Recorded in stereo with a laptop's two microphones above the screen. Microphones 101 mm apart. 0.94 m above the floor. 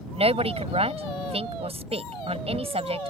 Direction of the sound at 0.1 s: 80° right.